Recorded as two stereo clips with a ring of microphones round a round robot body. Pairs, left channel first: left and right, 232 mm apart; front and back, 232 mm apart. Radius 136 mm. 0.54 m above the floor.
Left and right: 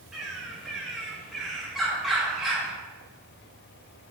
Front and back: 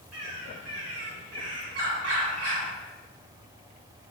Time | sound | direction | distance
0.1 | a bird | straight behind | 2.5 m